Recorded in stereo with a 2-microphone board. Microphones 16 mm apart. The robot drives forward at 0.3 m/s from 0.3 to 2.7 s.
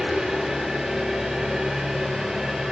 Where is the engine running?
60° right (ahead or behind), 6.5 m; by 2.7 s 70° right (ahead or behind), 6 m.